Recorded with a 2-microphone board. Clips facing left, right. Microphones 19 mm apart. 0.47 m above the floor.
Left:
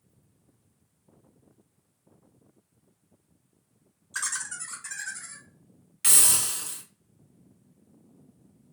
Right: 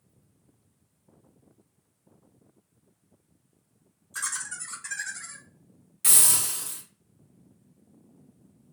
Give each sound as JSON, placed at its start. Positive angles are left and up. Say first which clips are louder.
{"t": 4.1, "sound": "laughter", "louder": "left 1 dB", "side_deg": 35, "distance_m": 1.0}
{"t": 6.0, "sound": "a hiss", "louder": "even", "side_deg": 25, "distance_m": 1.5}